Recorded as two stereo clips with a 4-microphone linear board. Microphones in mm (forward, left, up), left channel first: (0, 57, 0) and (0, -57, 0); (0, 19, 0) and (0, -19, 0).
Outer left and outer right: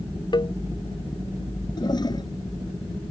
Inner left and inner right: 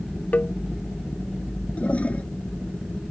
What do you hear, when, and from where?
0.3 s a cowbell: 40° left (ahead or behind)
1.8 s a toilet flushing: 40° left (ahead or behind)